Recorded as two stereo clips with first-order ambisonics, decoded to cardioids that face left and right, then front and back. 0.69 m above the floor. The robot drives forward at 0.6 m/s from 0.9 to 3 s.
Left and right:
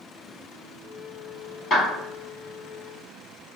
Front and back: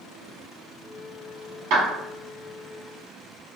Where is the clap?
160° left, 1.5 m.